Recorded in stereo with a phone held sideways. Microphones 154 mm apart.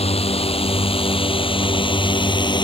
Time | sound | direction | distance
0.0 | a drone | 40° left (ahead or behind) | ?